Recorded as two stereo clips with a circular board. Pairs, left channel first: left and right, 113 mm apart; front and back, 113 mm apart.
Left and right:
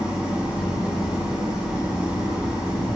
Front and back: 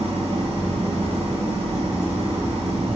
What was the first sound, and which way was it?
An engine running, 170° right.